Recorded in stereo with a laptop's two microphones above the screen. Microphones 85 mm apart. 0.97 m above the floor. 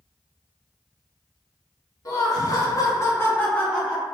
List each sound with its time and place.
2.0 s laughter: 45° left (ahead or behind), 1.2 m; by 4.0 s centre (ahead or behind), 1.0 m